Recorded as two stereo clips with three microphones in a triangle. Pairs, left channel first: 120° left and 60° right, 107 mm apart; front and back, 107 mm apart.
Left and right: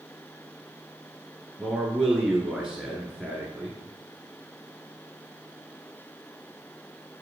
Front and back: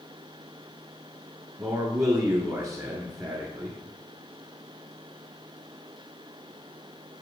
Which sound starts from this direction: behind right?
A man speaking, at 1.6 s.